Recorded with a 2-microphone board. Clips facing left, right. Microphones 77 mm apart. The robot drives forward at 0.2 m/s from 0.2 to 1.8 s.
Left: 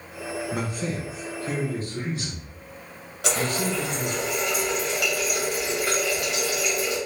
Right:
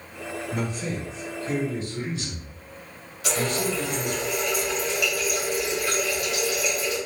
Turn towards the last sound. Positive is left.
turn(degrees=70)  # may be behind; listen again after turning